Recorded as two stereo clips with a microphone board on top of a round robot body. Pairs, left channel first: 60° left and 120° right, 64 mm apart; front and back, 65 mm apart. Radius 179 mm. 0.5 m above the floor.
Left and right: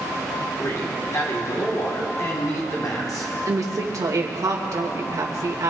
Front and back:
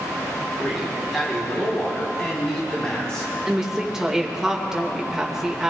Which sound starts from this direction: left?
A man speaking, at 0.6 s.